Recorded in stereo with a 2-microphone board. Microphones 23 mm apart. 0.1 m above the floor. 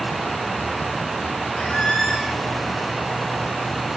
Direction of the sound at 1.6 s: 35° left (ahead or behind).